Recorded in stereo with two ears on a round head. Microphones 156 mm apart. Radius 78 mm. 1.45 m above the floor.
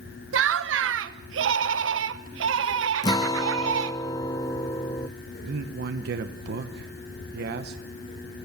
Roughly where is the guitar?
Left.